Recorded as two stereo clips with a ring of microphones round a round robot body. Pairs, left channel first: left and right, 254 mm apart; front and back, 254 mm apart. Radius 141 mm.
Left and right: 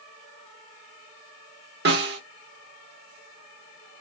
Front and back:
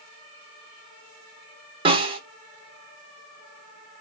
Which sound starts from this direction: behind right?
A snare drum, at 1.9 s.